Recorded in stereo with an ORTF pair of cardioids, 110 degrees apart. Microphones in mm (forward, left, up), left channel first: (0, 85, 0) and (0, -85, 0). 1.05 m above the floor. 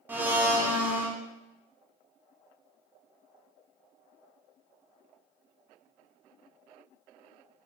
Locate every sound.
0.1 s a blender: 10° right, 0.5 m